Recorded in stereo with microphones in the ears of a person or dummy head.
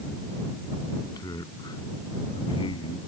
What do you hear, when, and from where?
1.0 s a man speaking: 20° left (ahead or behind); by 3.0 s 30° left (ahead or behind)